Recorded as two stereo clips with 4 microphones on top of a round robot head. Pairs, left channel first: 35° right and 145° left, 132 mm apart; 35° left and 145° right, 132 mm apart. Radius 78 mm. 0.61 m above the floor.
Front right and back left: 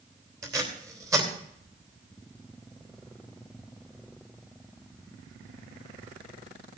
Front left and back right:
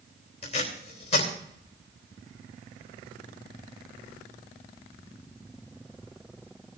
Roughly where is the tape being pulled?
Left.